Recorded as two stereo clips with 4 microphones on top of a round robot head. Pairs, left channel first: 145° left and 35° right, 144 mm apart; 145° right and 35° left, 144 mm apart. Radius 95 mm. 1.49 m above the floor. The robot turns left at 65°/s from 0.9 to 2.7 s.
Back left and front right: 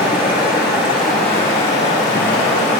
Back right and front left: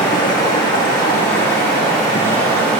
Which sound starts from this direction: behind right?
Running water, at 0.0 s.